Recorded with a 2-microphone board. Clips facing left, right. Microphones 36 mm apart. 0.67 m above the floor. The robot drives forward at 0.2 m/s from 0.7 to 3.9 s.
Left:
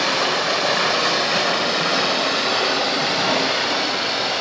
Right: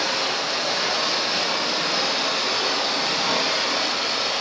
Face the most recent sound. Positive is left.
turn(degrees=45)  # may be behind; listen again after turning